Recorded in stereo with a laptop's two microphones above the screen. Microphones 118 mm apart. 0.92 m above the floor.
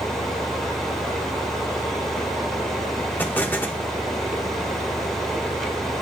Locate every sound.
0.0 s a fan: 5° left (ahead or behind), 1.1 m
3.2 s an explosion: 15° left (ahead or behind), 0.6 m